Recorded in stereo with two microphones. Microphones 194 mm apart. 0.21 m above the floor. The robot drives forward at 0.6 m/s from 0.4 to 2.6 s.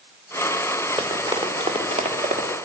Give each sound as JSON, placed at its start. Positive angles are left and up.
{"t": 1.0, "sound": "running footsteps", "side_deg": -20, "distance_m": 5.0}